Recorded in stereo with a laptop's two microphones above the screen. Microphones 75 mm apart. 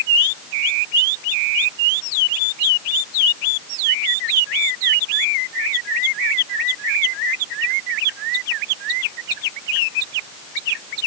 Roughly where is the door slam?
No door slam in this recording.